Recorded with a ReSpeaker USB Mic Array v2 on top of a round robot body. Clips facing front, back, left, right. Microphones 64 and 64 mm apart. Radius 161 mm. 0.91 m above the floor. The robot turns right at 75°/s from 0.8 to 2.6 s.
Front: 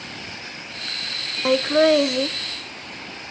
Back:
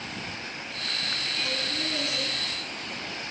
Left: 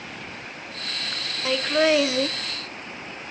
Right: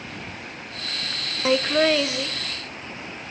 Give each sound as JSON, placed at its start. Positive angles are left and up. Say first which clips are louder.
{"t": 1.4, "sound": "laughter", "louder": "front 21 dB, right 1 dB", "azimuth_deg": -20, "distance_m": 0.8}